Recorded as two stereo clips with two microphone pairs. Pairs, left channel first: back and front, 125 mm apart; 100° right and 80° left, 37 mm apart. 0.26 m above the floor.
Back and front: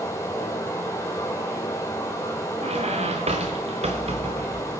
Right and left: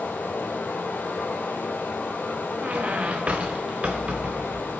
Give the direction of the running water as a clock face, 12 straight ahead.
4 o'clock.